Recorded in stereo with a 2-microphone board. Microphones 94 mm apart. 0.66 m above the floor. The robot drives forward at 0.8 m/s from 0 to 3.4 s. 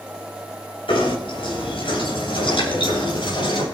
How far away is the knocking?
About 8.5 m.